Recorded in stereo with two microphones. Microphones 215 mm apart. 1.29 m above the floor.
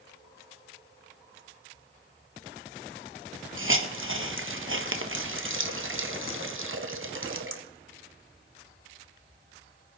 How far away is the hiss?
About 1.0 m.